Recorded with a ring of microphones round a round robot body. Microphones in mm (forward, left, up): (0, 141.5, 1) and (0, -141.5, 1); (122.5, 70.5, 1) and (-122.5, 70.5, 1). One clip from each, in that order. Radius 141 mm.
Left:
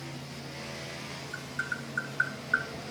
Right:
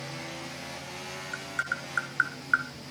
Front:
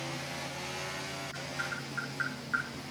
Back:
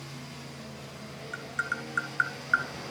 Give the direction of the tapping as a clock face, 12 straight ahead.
5 o'clock.